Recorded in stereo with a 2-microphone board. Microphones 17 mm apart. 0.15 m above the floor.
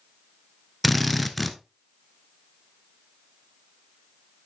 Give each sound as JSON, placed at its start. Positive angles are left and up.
{"t": 0.8, "sound": "a drill", "side_deg": 5, "distance_m": 0.9}